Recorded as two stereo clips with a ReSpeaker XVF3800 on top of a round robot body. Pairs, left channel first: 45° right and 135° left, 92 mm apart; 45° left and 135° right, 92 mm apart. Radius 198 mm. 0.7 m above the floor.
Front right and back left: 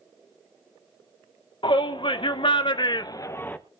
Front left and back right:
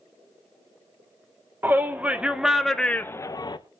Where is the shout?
70° right, 2 m; by 3.6 s 25° left, 1.1 m.